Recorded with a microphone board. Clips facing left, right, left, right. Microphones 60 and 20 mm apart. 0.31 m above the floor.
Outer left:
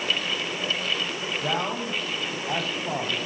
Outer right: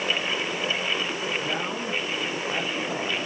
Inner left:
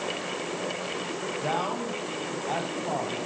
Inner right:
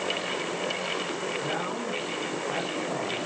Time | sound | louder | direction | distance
1.4 | a man speaking | outer left 1 dB, inner left 2 dB | 75° left (ahead or behind) | 9 m